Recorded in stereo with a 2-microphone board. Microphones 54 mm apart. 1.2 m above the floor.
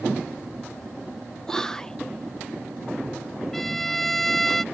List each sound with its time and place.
1.5 s whispering: 10° left (ahead or behind)
3.5 s a violin: 5° left (ahead or behind)